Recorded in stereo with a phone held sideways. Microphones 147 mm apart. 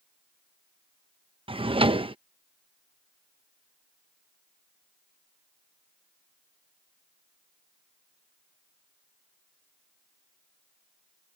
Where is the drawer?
35° right (ahead or behind).